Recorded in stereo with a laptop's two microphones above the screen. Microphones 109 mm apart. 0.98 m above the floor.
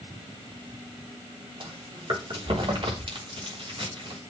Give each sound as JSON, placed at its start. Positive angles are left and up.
{"t": 1.6, "sound": "chewing", "side_deg": -50, "distance_m": 3.0}